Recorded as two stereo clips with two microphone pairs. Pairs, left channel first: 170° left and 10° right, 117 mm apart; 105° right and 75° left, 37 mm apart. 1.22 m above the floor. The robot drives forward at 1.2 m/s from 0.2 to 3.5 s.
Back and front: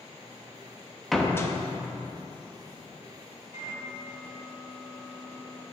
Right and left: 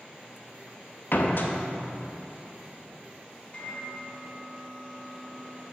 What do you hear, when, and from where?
1.1 s a door slam: 100° right, 0.8 m; by 1.5 s 135° right, 1.0 m
3.5 s a microwave: 175° right, 3.5 m